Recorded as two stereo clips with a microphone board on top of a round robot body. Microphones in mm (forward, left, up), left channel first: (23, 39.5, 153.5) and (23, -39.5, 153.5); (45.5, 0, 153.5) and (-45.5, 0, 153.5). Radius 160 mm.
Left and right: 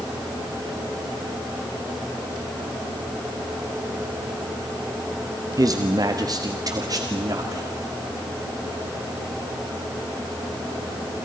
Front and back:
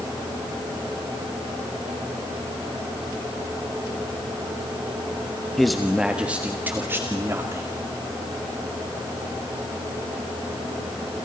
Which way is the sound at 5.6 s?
85° right.